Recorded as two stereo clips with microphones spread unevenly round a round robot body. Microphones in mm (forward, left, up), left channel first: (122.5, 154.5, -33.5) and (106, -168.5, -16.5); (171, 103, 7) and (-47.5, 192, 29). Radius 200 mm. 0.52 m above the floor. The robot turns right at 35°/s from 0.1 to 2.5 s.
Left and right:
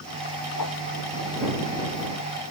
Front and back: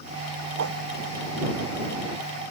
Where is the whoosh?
140° left; by 0.8 s 150° left.